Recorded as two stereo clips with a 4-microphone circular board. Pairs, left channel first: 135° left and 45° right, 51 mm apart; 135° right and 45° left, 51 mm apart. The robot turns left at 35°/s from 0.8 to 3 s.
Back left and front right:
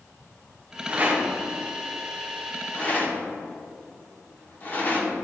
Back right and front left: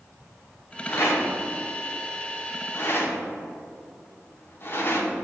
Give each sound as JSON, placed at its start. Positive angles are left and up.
{"t": 0.9, "sound": "a rattle", "azimuth_deg": -100, "distance_m": 1.5}